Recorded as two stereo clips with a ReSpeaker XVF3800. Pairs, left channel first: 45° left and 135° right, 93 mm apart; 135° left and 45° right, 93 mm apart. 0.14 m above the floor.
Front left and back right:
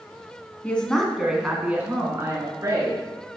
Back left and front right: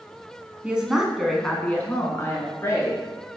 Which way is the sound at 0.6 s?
Straight ahead.